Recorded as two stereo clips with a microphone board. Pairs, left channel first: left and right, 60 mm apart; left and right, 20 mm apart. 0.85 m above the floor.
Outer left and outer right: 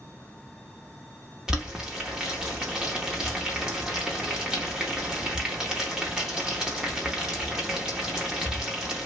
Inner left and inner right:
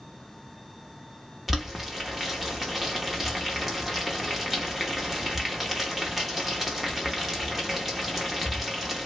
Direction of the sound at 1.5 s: 10° right (ahead or behind).